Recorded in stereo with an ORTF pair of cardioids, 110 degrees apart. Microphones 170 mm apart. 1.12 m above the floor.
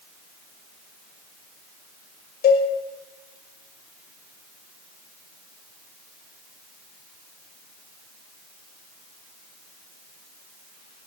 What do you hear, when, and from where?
2.4 s a cowbell: 60° left, 5.5 m